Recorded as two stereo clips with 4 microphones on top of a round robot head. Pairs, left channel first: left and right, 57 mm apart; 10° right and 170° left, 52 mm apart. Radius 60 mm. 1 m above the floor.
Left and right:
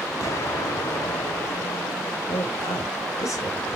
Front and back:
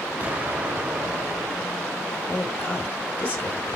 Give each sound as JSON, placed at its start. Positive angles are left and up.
{"t": 0.2, "sound": "an explosion", "azimuth_deg": 115, "distance_m": 3.0}
{"t": 2.3, "sound": "a woman speaking", "azimuth_deg": 55, "distance_m": 4.5}